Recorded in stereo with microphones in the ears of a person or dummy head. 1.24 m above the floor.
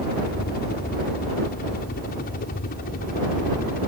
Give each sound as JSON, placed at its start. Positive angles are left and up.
{"t": 0.0, "sound": "a helicopter", "side_deg": 50}